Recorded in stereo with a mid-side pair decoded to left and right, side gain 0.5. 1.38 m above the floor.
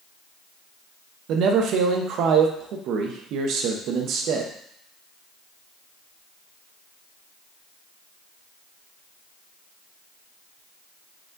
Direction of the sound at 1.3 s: 70° right.